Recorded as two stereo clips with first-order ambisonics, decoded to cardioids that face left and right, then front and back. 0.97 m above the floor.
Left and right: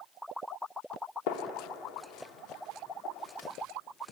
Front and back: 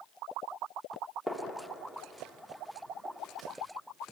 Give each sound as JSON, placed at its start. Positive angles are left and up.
{"t": 1.3, "sound": "a gunshot", "azimuth_deg": 95, "distance_m": 1.5}